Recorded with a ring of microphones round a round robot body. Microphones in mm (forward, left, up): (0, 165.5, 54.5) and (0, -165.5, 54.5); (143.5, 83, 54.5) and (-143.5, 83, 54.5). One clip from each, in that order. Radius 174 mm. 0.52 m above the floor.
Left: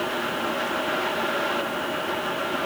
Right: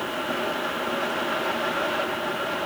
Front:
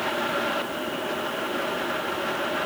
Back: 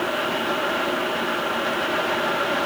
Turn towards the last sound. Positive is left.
No sound to turn to.